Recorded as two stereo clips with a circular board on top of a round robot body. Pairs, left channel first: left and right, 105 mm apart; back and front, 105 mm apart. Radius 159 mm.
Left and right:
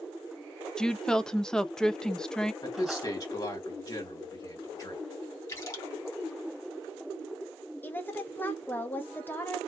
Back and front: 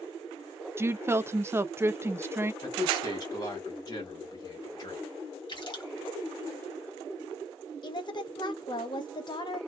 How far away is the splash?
About 1.7 m.